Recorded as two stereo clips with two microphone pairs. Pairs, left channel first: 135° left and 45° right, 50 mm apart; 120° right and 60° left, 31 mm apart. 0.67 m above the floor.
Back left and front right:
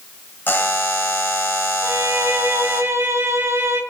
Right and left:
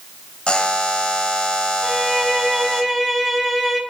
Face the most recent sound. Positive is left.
turn(degrees=-40)